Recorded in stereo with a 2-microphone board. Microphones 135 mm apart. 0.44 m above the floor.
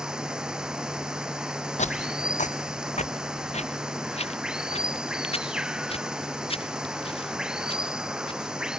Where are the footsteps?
55° left (ahead or behind); by 8.5 s 40° left (ahead or behind).